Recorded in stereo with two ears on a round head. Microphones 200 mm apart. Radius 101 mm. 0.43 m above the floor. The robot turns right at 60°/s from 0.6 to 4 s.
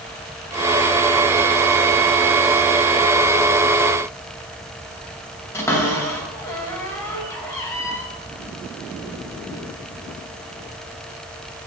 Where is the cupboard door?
15° left (ahead or behind), 2.5 m.